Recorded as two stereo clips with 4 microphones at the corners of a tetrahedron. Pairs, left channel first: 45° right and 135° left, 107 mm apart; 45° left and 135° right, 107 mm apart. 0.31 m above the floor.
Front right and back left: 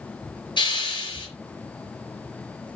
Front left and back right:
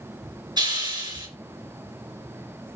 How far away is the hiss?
About 4 m.